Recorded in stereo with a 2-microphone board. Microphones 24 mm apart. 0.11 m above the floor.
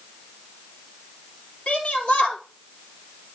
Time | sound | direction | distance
1.7 | a shout | 65° left (ahead or behind) | 3 m